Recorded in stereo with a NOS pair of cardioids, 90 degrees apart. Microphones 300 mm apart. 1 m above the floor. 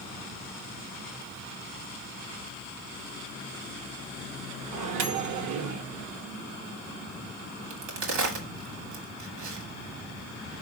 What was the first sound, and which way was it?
A microwave, 65° right.